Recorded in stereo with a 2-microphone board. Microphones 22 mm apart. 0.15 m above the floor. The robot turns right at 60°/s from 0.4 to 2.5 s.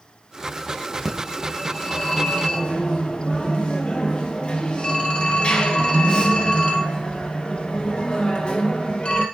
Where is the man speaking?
I don't hear a man speaking.